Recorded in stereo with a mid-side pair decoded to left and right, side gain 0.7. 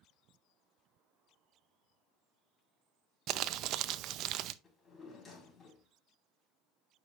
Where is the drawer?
25° left, 3.5 m.